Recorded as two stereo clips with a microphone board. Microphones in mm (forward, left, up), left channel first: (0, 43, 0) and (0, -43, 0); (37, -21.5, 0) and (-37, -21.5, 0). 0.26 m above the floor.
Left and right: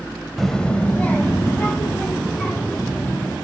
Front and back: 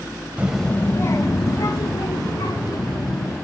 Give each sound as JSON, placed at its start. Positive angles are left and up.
{"t": 0.4, "sound": "a child speaking", "azimuth_deg": 170, "distance_m": 0.6}